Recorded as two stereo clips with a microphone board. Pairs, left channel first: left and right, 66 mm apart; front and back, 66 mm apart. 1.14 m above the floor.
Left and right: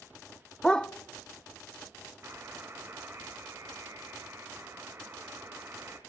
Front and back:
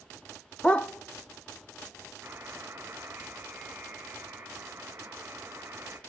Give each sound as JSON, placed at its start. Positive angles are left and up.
{"t": 0.6, "sound": "a dog barking", "azimuth_deg": 30, "distance_m": 0.6}
{"t": 2.2, "sound": "a buzzer", "azimuth_deg": -130, "distance_m": 2.0}